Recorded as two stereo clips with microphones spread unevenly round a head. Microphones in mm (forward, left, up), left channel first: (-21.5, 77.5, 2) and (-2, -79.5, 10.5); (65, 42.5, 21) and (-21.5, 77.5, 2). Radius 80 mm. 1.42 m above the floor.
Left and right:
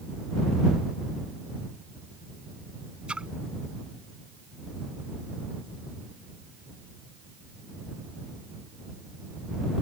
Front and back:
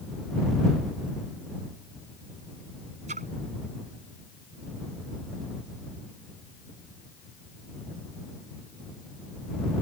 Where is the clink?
I don't hear a clink.